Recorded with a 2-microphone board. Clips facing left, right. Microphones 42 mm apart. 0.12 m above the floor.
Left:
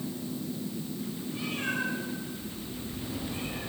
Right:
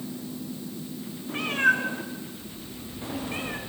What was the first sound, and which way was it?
A cat meowing, 75° right (ahead or behind).